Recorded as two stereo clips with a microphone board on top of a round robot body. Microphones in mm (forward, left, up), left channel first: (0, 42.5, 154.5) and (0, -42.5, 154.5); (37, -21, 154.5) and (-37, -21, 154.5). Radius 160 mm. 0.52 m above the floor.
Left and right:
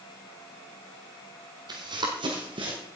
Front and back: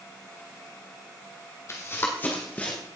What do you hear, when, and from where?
1.7 s running footsteps: 55° right, 1.4 m; by 2.8 s 70° right, 2.5 m